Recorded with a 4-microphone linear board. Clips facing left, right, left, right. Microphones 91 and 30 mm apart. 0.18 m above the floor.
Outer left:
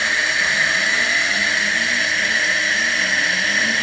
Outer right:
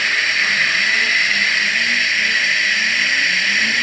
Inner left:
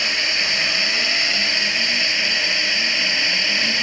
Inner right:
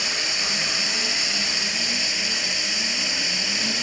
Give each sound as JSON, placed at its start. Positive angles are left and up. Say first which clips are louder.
{"t": 0.0, "sound": "a drone", "louder": "even, inner left 5 dB", "side_deg": 30}